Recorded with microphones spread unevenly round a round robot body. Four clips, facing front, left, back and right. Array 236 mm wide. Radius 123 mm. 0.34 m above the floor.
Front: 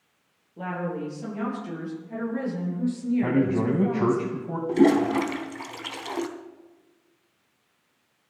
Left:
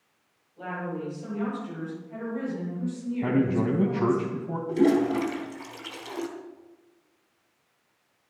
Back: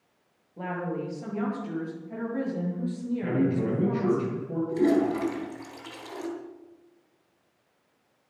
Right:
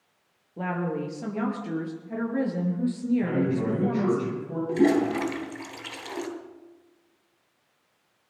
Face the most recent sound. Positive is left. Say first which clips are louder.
# even, front 4 dB
turn(degrees=-10)